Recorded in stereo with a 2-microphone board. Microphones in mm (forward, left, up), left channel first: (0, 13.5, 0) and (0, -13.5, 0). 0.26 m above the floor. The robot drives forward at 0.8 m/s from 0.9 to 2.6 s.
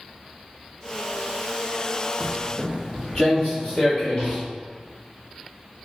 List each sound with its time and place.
2.2 s footsteps: centre (ahead or behind), 0.9 m; by 4.4 s 30° left (ahead or behind), 2 m